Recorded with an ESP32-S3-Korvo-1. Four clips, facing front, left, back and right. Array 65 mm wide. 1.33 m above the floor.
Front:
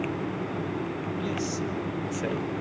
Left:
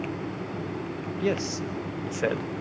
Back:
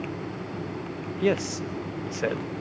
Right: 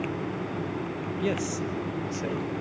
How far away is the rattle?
I don't hear a rattle.